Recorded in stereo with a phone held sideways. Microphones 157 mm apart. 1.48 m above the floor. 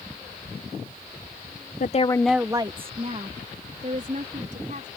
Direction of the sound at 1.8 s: 60° left (ahead or behind).